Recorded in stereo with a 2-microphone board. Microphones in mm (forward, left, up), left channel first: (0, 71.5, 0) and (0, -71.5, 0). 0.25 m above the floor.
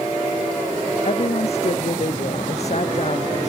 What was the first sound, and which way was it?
A woman speaking, 45° left (ahead or behind).